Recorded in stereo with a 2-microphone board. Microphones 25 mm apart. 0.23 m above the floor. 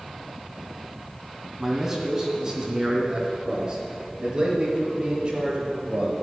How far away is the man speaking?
About 1.9 m.